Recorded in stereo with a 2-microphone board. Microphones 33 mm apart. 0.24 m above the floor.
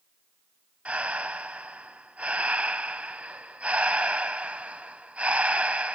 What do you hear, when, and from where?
0.8 s breathing: 40° right (ahead or behind), 0.6 m